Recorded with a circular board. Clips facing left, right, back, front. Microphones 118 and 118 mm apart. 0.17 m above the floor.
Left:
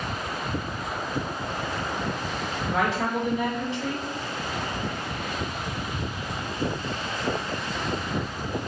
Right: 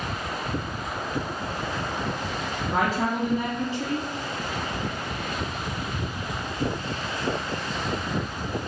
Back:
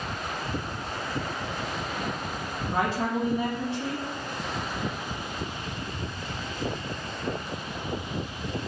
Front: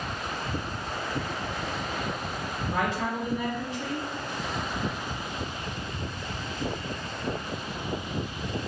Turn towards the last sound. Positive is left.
turn(degrees=-130)